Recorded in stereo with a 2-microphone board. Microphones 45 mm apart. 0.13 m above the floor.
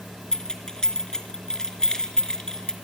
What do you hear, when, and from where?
0.3 s keys jangling: 15° left (ahead or behind), 1.4 m